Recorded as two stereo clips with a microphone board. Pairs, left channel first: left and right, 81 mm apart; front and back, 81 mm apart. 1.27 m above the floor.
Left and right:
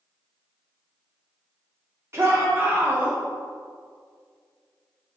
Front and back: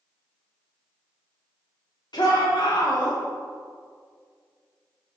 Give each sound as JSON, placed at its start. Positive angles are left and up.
{"t": 2.1, "sound": "a shout", "azimuth_deg": -35, "distance_m": 3.0}